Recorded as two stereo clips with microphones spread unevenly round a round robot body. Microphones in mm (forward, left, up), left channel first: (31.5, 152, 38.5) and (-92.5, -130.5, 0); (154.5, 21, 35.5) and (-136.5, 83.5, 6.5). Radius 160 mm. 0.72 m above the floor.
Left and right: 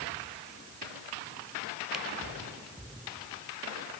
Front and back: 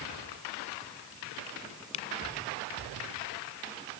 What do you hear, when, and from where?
1.9 s a camera shutter: 25° right